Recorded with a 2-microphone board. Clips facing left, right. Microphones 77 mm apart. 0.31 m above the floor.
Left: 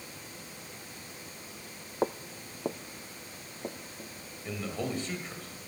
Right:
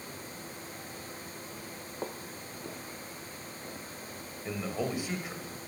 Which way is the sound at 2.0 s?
35° left (ahead or behind).